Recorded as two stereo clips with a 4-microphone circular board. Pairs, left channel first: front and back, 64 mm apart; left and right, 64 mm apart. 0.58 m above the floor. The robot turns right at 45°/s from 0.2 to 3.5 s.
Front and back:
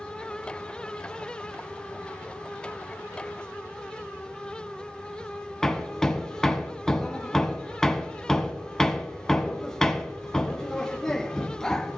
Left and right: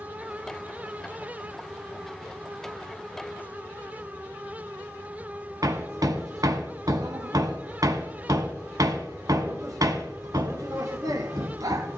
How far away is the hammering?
About 1.1 m.